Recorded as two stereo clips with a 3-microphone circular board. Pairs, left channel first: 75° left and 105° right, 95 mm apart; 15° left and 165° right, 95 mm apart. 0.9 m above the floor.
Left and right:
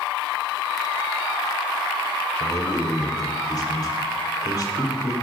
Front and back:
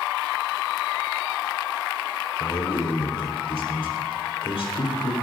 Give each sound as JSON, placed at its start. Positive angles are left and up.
{"t": 2.4, "sound": "a man speaking", "azimuth_deg": 30, "distance_m": 3.5}